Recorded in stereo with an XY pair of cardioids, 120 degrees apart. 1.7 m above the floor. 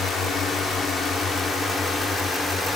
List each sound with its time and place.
0.0 s a drone: 55° left; by 2.8 s 25° left